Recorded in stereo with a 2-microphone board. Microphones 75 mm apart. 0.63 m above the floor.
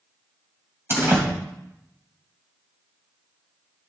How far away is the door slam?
About 2.5 m.